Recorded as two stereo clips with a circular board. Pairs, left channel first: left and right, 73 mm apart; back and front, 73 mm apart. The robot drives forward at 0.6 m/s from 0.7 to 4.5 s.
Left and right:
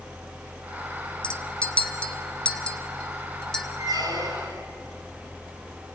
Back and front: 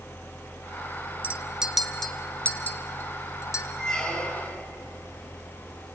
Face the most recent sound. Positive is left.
turn(degrees=-110)